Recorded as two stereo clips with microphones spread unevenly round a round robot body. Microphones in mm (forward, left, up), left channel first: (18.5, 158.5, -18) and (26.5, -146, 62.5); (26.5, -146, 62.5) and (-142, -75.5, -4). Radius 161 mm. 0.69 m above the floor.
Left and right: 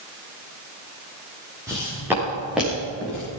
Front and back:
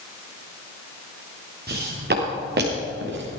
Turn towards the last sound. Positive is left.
turn(degrees=180)